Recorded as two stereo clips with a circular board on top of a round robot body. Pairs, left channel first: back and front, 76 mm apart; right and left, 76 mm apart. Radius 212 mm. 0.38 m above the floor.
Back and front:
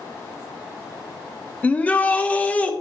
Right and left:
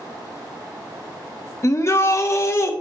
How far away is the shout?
About 1.1 m.